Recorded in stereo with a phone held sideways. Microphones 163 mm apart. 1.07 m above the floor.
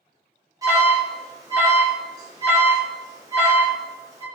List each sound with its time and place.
0.6 s an alarm: 20° right (ahead or behind), 1.1 m